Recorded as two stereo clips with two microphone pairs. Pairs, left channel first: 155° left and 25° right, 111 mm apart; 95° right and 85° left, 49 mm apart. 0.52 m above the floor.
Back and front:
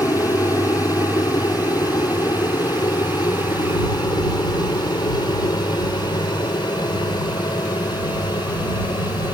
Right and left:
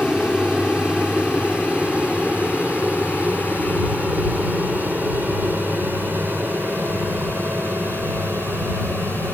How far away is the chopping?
No chopping in this recording.